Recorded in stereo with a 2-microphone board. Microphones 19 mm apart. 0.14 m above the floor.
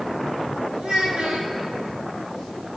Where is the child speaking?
70° right (ahead or behind), 4 m.